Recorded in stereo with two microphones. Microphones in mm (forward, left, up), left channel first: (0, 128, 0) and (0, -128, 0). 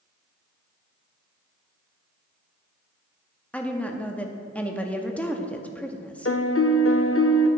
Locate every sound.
3.5 s a woman speaking: 5° left (ahead or behind), 0.7 m
6.2 s a piano: 60° left (ahead or behind), 0.6 m